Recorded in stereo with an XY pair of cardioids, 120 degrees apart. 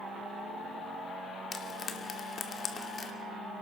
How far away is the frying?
About 2.5 m.